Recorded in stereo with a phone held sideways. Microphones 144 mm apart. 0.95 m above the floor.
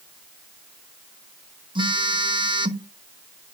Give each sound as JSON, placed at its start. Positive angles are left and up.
{"t": 1.8, "sound": "a phone buzzing", "side_deg": -35, "distance_m": 0.7}